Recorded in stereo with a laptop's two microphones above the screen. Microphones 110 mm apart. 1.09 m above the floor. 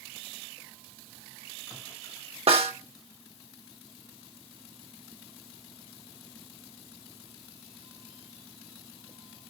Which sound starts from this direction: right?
A snare drum, at 2.5 s.